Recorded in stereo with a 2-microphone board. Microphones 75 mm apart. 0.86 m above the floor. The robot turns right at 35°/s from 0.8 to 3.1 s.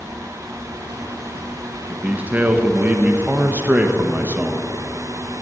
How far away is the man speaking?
About 0.8 m.